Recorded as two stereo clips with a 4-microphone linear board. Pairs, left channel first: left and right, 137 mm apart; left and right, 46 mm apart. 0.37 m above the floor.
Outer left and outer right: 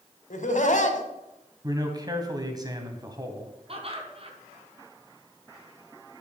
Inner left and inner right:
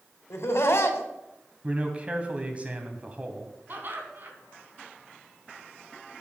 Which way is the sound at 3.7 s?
45° right (ahead or behind).